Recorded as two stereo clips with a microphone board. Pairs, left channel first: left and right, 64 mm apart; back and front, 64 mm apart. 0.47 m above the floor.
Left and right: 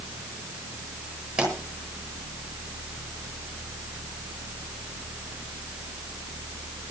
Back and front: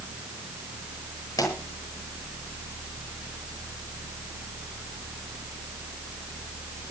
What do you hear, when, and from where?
1.4 s a pop: 160° right, 8.5 m